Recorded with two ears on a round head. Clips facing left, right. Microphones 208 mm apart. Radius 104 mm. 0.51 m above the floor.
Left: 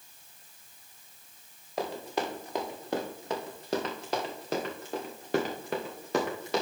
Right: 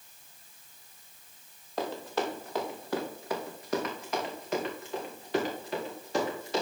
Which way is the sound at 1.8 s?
10° left (ahead or behind).